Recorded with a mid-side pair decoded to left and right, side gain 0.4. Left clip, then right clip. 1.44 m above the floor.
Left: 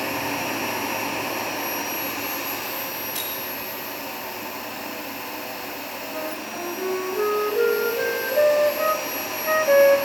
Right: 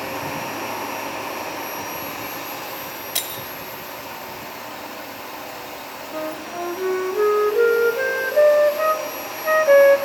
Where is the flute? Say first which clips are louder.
Right 5 dB; 30° right, 0.7 m.